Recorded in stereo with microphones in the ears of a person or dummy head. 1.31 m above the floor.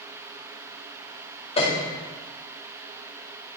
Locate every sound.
1.6 s a piano: 35° left (ahead or behind), 2.0 m